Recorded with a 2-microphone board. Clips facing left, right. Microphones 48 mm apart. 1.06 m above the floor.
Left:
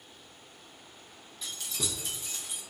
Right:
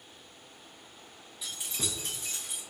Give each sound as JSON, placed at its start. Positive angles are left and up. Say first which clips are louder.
{"t": 1.4, "sound": "keys jangling", "louder": "even", "side_deg": -5, "distance_m": 0.9}